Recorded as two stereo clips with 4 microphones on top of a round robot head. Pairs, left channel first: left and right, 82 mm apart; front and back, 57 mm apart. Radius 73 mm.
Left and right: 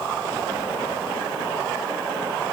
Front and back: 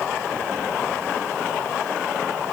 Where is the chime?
No chime in this recording.